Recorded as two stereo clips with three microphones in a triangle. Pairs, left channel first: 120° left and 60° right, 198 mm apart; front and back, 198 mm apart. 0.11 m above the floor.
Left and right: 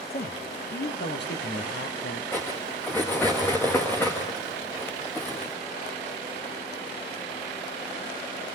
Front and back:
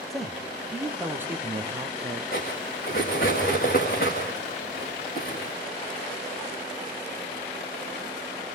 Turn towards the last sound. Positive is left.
turn(degrees=40)